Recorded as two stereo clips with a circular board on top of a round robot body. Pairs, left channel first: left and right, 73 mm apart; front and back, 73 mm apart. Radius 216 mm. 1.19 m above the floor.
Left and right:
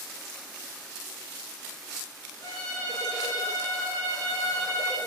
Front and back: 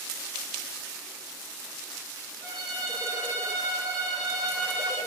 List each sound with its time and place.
2.4 s a violin: 65° left, 1.8 m